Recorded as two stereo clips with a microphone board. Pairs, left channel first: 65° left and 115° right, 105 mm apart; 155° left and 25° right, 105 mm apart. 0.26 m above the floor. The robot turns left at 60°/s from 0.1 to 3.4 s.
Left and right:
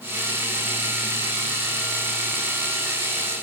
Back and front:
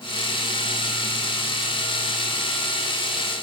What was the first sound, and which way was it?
Only background noise.